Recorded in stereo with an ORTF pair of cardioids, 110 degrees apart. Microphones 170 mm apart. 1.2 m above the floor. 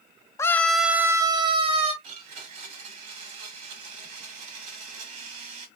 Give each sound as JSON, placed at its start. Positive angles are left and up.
{"t": 0.4, "sound": "a scream", "azimuth_deg": 15, "distance_m": 0.7}
{"t": 2.0, "sound": "a blender", "azimuth_deg": -45, "distance_m": 1.3}